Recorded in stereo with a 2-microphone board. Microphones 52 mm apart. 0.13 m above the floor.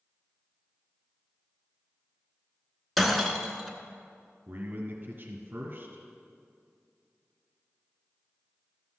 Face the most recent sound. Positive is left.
turn(degrees=-35)  # may be behind; listen again after turning